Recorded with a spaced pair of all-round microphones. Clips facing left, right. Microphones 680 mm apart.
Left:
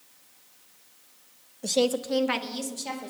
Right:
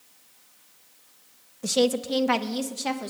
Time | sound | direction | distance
1.6 | a woman speaking | 35° right (ahead or behind) | 1.1 m